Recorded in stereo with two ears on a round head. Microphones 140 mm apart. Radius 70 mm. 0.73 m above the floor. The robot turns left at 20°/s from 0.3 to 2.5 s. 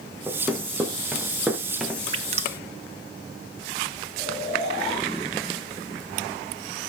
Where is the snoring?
5° left (ahead or behind), 7.5 m.